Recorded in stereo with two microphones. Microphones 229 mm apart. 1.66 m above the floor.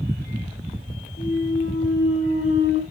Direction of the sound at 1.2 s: 55° left (ahead or behind).